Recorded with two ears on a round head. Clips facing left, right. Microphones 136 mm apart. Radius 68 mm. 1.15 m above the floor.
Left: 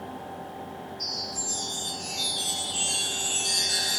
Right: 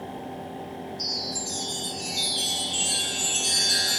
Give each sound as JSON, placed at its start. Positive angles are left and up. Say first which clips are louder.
{"t": 1.0, "sound": "a chime", "louder": "right 3 dB", "side_deg": -70, "distance_m": 1.3}